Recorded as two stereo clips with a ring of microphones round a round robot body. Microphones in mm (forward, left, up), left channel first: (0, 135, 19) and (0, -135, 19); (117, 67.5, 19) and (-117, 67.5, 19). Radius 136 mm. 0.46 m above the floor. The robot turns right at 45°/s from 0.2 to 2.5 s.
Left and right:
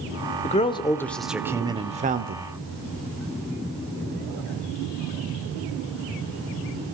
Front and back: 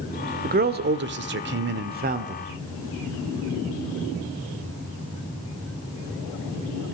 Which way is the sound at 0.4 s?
145° left.